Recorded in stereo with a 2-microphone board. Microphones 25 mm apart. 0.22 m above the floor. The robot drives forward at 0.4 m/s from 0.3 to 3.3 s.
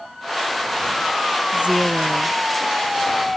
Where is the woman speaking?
50° right (ahead or behind).